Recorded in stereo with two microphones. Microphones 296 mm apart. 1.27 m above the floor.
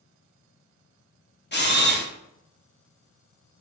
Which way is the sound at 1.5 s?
35° left (ahead or behind).